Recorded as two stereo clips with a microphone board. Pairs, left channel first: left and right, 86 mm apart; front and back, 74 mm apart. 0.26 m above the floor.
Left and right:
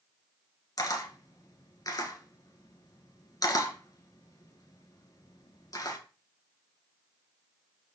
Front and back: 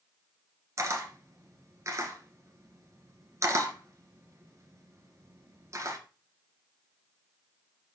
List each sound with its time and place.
0.8 s a camera shutter: 135° left, 1.5 m